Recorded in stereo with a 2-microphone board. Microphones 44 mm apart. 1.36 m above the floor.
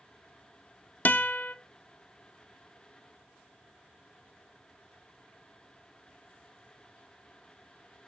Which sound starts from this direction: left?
A guitar, at 1.1 s.